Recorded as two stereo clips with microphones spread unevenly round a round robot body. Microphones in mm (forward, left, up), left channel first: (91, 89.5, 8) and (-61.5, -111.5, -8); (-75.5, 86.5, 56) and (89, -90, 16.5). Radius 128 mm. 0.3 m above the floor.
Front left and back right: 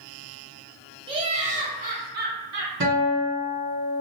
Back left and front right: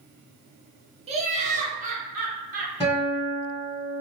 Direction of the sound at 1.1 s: 75° right.